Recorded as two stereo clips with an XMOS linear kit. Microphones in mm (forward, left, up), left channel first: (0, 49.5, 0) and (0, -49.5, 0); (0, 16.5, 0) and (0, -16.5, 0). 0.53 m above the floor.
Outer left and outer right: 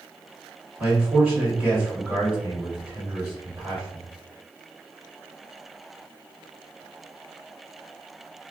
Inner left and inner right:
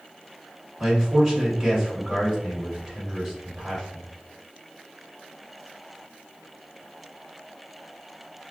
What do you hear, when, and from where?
0.8 s a man speaking: 15° right (ahead or behind), 1.8 m